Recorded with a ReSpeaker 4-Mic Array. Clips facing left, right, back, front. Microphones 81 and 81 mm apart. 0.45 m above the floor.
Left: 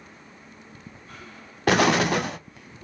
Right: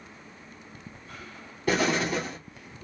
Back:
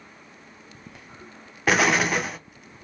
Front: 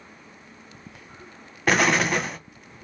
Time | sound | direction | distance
1.7 | an explosion | 90° left | 0.6 m